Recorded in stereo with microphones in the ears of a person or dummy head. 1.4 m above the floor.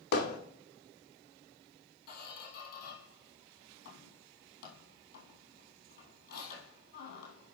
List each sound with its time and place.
0.1 s hammering: 70° left (ahead or behind), 1.7 m
2.1 s a squeak: 55° left (ahead or behind), 2.5 m